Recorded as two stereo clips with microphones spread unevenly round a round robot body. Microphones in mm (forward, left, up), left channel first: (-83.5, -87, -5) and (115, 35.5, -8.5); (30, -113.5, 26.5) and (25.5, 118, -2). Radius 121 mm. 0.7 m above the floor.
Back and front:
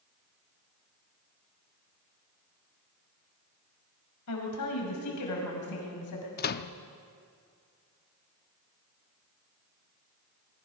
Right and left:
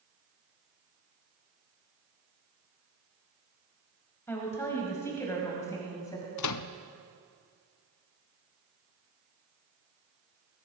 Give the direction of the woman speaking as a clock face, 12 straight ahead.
6 o'clock.